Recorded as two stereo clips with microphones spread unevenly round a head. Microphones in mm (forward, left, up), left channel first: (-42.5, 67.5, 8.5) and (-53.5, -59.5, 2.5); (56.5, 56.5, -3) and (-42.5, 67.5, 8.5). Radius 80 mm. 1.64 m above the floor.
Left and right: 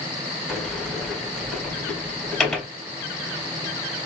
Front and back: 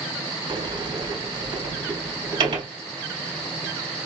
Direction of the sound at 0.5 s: 170° left.